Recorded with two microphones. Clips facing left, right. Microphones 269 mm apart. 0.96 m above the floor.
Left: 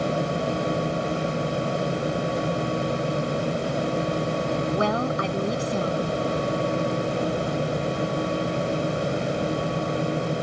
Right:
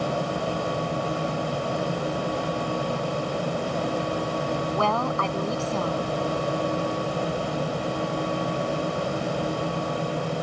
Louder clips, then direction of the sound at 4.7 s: Left 2 dB; 15° left (ahead or behind).